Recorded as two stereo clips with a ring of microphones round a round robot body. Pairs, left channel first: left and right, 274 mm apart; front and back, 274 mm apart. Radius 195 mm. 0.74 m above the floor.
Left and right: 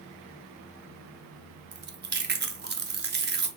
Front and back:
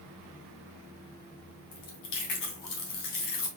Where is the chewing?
35° right, 0.9 m.